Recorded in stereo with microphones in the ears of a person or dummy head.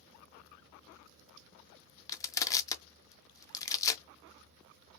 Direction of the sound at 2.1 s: 20° left (ahead or behind).